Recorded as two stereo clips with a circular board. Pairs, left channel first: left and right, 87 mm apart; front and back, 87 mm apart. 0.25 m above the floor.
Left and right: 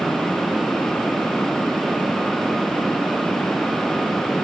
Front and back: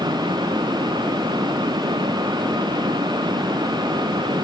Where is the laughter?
I don't hear laughter.